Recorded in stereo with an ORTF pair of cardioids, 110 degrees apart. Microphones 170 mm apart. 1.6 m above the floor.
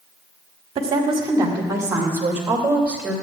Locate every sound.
0.8 s a woman speaking: 35° right, 1.9 m; by 3.1 s 5° right, 3 m